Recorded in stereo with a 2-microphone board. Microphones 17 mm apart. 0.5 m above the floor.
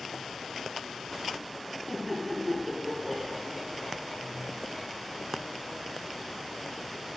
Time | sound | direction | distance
1.9 | laughter | 30° left (ahead or behind) | 3 m